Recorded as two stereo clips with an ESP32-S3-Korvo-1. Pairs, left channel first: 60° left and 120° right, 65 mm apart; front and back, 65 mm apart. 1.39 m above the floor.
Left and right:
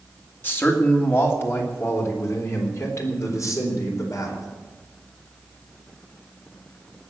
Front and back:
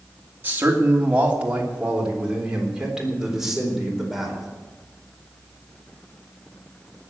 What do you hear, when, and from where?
0.4 s a man speaking: 120° left, 2.5 m; by 4.5 s 95° left, 4.5 m